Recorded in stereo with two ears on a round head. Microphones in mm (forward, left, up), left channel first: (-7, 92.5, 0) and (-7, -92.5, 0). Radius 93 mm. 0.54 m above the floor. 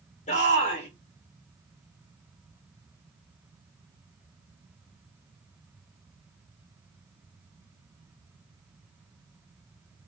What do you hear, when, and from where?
0.3 s a shout: 35° left (ahead or behind), 1.8 m